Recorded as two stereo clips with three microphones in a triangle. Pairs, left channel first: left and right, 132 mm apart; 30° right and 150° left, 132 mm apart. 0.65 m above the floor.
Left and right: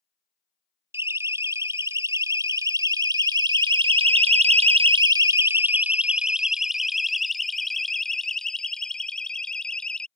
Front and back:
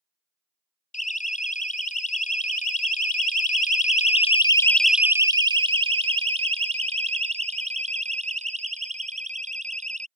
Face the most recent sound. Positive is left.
turn(degrees=175)